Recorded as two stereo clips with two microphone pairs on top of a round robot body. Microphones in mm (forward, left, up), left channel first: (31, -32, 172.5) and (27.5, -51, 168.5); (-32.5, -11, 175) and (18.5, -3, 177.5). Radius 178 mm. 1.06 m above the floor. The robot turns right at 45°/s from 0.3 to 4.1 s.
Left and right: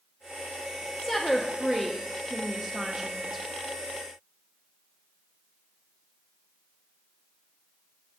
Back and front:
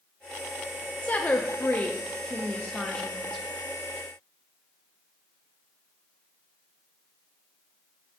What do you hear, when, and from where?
1.0 s a woman speaking: 165° left, 0.6 m; by 3.4 s 90° right, 0.6 m